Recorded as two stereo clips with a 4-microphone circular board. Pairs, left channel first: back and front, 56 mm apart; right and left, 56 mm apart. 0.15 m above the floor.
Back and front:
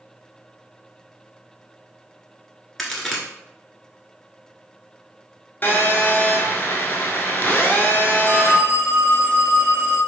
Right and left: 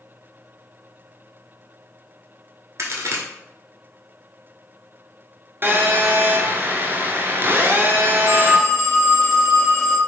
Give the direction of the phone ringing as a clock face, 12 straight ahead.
12 o'clock.